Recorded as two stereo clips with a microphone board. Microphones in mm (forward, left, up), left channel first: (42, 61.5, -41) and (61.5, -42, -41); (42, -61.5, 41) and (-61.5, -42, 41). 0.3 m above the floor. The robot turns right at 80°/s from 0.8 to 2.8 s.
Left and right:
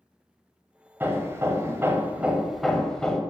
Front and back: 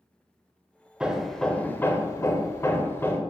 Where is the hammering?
120° right, 1.0 m; by 3.2 s 25° left, 1.0 m.